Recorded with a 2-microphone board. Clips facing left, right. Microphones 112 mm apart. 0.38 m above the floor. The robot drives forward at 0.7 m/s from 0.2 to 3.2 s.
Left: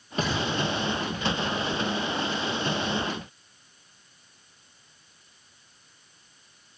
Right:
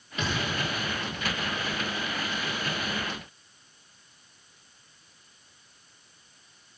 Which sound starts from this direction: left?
A thud, at 0.2 s.